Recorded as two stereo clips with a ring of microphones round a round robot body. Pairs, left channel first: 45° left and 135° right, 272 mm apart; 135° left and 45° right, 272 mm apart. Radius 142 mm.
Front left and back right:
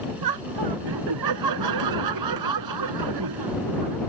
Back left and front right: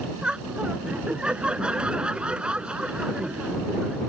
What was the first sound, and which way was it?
Laughter, 130° right.